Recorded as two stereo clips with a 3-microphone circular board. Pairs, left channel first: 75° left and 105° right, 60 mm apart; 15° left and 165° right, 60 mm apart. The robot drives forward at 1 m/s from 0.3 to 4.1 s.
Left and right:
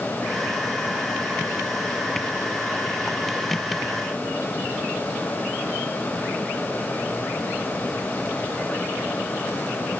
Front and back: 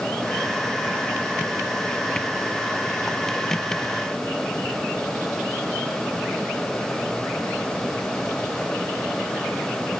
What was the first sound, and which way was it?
Only background noise.